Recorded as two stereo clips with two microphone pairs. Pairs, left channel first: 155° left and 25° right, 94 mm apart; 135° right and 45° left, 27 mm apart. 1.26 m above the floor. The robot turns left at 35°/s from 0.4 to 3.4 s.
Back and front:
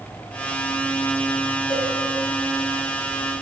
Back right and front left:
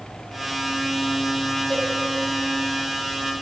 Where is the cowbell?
120° left, 5 m; by 1.9 s 115° left, 5 m.